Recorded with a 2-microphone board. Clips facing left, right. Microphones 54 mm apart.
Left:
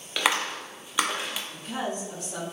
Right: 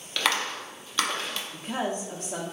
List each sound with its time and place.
0.2 s a clap: 15° left (ahead or behind), 0.6 m
1.5 s a woman speaking: 40° right (ahead or behind), 0.8 m